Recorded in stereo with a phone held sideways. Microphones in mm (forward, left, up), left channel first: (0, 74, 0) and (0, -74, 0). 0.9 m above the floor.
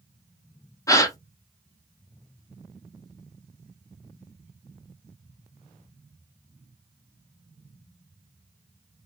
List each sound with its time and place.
0.9 s a gasp: 20° left (ahead or behind), 0.7 m